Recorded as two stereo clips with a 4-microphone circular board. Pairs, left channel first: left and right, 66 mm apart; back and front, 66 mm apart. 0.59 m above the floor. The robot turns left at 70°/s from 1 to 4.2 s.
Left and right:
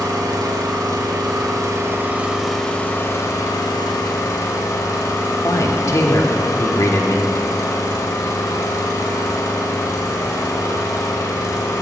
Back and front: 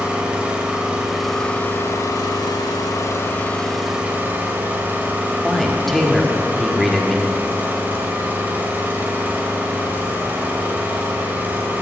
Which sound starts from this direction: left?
A man speaking, at 5.4 s.